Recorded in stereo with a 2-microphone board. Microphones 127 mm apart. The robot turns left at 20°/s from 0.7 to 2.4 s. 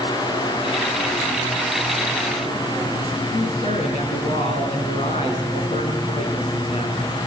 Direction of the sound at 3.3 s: 65° left (ahead or behind).